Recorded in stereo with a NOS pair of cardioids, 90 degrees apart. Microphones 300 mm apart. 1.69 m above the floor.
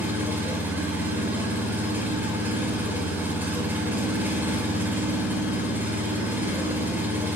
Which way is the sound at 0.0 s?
5° right.